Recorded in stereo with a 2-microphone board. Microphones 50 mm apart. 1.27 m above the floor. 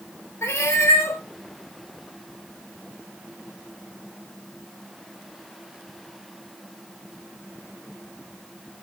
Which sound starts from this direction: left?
A cat meowing, at 0.4 s.